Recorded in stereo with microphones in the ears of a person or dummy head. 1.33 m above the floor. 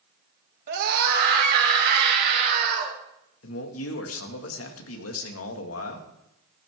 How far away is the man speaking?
About 2.0 m.